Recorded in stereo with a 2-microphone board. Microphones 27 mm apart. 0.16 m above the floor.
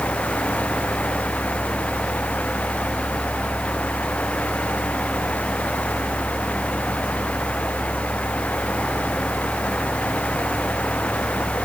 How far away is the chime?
No chime in this recording.